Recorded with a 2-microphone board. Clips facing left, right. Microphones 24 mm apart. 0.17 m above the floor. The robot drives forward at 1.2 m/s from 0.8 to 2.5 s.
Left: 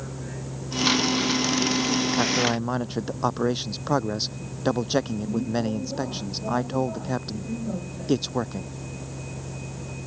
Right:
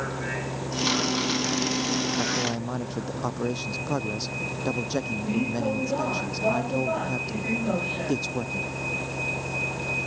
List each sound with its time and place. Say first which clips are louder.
0.0 s a vehicle: right 6 dB; 70° right (ahead or behind); by 10.1 s 75° right (ahead or behind)
2.2 s a man speaking: left 4 dB; 25° left (ahead or behind)